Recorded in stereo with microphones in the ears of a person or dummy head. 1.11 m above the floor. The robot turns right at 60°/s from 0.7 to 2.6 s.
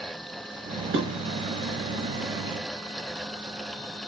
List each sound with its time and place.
0.9 s dishes clattering: 55° right (ahead or behind), 0.9 m; by 1.1 s 65° right (ahead or behind), 0.9 m